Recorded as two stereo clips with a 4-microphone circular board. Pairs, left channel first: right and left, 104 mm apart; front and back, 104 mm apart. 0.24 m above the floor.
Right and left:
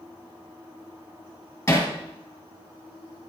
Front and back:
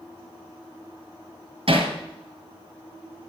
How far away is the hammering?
About 2.5 m.